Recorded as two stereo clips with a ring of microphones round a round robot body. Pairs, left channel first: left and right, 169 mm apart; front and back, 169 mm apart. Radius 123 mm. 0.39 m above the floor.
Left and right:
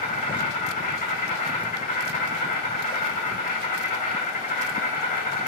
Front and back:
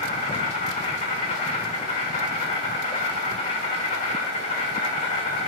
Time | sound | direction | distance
0.0 | an insect | 55° left | 3 m